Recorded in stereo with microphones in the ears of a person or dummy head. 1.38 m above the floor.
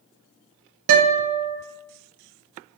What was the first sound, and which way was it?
A guitar, 80° right.